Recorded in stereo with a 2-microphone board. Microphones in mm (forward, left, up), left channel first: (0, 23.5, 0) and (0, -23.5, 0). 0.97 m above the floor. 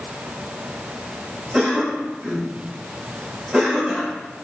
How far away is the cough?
About 1.4 m.